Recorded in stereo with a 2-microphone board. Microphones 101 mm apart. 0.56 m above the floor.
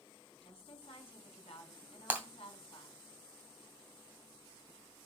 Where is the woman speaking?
75° left (ahead or behind), 5 m.